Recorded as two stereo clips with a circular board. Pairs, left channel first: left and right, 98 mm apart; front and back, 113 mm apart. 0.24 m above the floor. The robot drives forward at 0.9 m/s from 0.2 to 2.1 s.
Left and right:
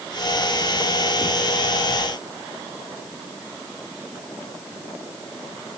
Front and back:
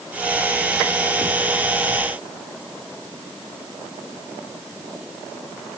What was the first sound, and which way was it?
Only background noise.